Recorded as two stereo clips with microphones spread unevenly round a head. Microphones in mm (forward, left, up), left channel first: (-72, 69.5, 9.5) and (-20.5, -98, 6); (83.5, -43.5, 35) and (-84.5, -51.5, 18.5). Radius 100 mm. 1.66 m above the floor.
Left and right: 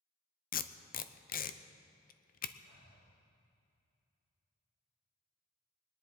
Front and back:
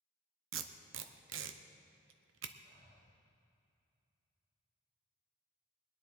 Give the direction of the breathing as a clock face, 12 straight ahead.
8 o'clock.